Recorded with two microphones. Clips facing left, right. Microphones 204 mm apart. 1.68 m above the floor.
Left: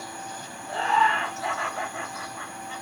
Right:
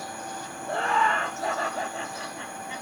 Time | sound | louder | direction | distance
0.7 | laughter | left 1 dB | 55° right (ahead or behind) | 3 m